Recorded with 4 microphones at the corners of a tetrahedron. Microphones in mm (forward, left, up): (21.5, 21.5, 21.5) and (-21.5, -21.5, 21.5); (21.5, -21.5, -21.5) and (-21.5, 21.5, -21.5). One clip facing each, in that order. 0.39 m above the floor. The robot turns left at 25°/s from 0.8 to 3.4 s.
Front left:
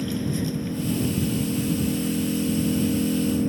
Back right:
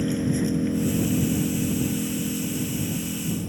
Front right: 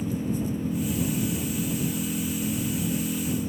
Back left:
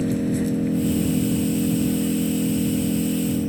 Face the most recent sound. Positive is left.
turn(degrees=90)